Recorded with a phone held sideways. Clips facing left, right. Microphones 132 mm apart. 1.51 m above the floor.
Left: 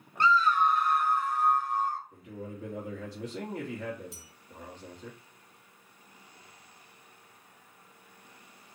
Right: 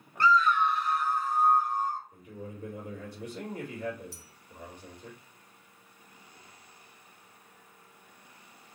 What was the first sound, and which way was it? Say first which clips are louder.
A scream: even; 20° left (ahead or behind).